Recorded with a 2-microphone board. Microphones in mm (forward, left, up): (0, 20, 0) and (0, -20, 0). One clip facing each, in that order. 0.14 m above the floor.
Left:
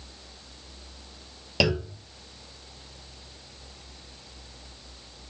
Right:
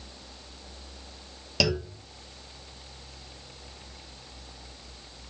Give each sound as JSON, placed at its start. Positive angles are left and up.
{"t": 1.6, "sound": "a clunk", "side_deg": 15, "distance_m": 0.7}